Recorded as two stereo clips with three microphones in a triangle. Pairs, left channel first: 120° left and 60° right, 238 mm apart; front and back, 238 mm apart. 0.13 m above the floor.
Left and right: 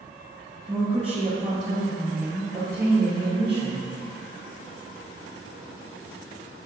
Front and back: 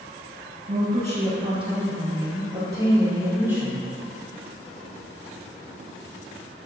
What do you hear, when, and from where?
0.7 s a woman speaking: 125° right, 2.5 m; by 3.9 s 100° right, 4 m